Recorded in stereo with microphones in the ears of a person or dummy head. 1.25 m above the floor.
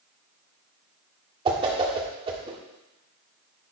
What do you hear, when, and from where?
1.4 s a whoosh: 30° right (ahead or behind), 1.5 m